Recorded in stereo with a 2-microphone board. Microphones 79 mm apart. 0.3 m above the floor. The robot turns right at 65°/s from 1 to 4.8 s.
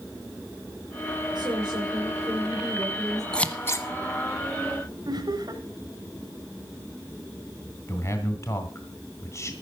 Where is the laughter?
55° right (ahead or behind), 2.5 m.